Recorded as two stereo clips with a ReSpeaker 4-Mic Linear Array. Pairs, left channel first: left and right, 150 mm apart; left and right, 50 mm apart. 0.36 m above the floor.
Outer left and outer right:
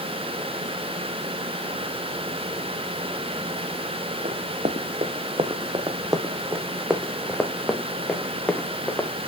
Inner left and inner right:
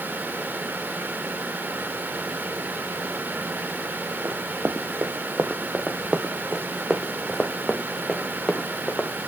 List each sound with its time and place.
4.2 s running footsteps: 60° right (ahead or behind), 1.5 m; by 9.1 s 10° left (ahead or behind), 2.5 m